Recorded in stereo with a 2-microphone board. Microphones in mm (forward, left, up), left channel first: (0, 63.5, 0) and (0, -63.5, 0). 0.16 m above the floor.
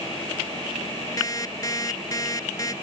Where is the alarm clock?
30° left (ahead or behind).